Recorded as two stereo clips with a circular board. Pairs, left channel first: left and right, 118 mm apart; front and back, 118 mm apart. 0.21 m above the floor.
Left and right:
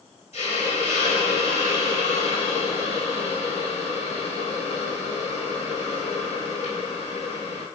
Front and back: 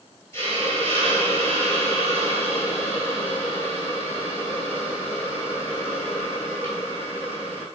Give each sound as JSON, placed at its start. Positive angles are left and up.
{"t": 0.3, "sound": "a hiss", "azimuth_deg": 65, "distance_m": 1.1}